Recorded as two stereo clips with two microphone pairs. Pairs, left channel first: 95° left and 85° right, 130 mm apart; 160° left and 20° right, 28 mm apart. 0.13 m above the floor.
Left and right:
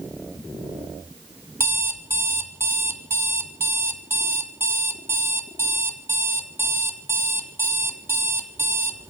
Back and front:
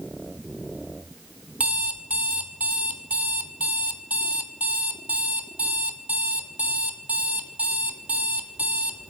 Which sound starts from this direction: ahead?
An alarm clock, at 1.6 s.